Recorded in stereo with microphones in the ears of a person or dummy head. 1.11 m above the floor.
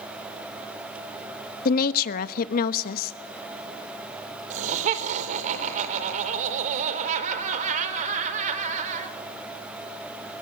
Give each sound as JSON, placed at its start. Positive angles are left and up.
{"t": 1.6, "sound": "a woman speaking", "side_deg": 50, "distance_m": 1.1}
{"t": 4.5, "sound": "laughter", "side_deg": -40, "distance_m": 4.0}